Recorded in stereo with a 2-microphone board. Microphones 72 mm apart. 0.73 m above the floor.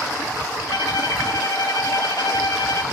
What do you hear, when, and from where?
0.7 s a violin: 70° left (ahead or behind), 2.0 m